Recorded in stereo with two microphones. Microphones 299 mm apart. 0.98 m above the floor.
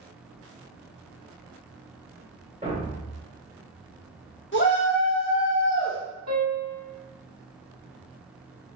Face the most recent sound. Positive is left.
turn(degrees=-65)  # may be behind; listen again after turning